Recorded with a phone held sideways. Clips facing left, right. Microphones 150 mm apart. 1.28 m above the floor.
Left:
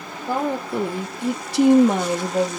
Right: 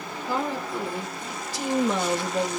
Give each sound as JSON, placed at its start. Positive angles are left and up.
{"t": 0.3, "sound": "a woman speaking", "side_deg": 50, "distance_m": 1.0}